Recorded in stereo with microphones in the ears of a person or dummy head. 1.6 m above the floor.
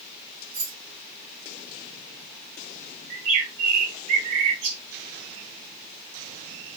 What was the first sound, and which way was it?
Keys jangling, 50° right (ahead or behind).